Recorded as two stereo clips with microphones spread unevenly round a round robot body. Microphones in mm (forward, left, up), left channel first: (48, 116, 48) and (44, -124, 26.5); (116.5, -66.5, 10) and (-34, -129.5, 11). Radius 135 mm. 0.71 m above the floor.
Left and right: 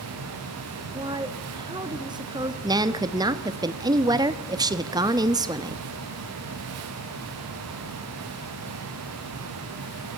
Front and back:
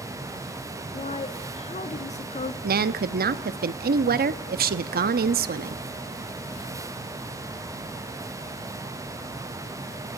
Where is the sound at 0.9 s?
20° right, 1.3 m.